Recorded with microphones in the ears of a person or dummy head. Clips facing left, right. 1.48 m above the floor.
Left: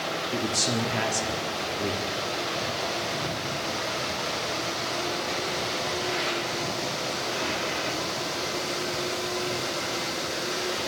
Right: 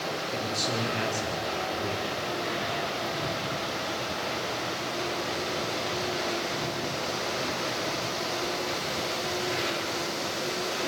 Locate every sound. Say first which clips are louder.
0.3 s a man speaking: left 4 dB; 85° left, 4 m